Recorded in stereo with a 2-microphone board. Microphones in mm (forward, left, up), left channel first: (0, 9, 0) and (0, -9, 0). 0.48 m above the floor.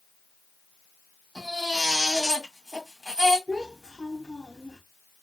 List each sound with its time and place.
1.4 s a baby crying: 15° right (ahead or behind), 2 m
3.5 s a child speaking: 15° right (ahead or behind), 1.9 m